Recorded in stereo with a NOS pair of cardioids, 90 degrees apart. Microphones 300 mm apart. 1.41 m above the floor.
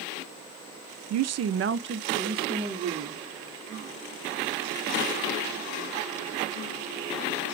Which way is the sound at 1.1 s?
65° right.